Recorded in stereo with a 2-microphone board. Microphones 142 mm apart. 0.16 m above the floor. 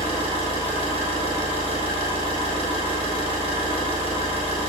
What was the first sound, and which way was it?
An engine running, 40° left (ahead or behind).